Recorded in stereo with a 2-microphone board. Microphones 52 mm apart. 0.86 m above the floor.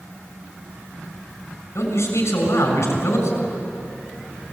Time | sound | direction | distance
1.8 | a man speaking | 60° left (ahead or behind) | 6.5 m